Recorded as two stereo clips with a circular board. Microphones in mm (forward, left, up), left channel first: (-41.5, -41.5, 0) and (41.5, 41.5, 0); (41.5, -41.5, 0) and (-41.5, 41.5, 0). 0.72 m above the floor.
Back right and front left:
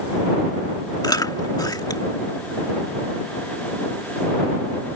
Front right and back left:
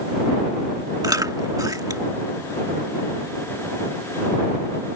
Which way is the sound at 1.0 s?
Straight behind.